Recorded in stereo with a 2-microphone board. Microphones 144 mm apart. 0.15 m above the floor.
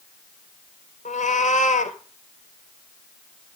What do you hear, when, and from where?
1.1 s a cat meowing: 65° left (ahead or behind), 1.9 m